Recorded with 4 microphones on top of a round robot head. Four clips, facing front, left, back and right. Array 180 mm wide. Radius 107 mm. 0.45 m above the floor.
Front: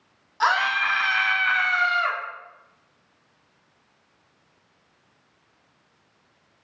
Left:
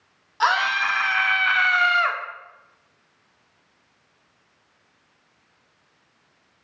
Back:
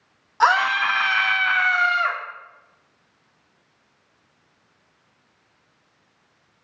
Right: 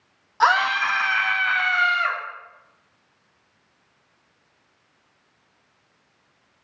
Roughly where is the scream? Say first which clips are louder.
Right 2 dB, back 4 dB; behind right.